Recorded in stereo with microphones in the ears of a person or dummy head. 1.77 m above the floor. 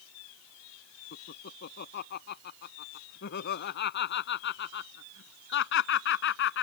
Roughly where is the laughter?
Left.